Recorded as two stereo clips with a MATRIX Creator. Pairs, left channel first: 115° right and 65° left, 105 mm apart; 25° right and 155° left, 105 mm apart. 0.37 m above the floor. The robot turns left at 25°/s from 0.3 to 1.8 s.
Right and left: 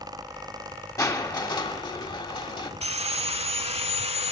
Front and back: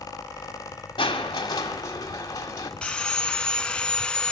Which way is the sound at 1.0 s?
55° right.